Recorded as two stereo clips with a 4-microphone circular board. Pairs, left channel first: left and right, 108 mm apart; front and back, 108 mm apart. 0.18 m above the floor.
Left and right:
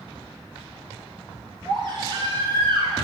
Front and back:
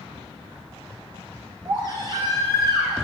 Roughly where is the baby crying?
Behind right.